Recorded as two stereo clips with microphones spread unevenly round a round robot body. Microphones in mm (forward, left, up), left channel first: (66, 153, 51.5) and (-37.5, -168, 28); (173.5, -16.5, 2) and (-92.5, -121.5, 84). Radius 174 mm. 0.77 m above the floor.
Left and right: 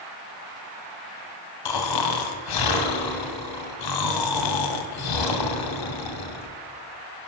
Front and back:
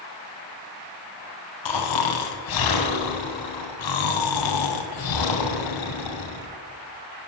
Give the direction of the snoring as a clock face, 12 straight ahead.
10 o'clock.